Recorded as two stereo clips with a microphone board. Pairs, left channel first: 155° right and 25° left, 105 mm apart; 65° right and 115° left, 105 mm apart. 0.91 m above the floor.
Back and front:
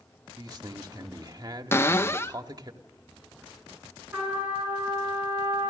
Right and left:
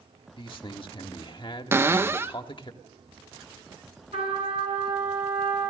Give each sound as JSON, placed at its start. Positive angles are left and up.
{"t": 0.4, "sound": "a man speaking", "azimuth_deg": -30, "distance_m": 1.5}
{"t": 1.7, "sound": "a cupboard door", "azimuth_deg": 155, "distance_m": 0.6}
{"t": 4.1, "sound": "a trumpet", "azimuth_deg": 95, "distance_m": 8.0}